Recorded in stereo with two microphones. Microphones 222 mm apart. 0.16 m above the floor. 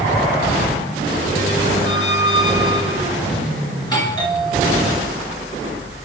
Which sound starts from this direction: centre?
A doorbell, at 3.8 s.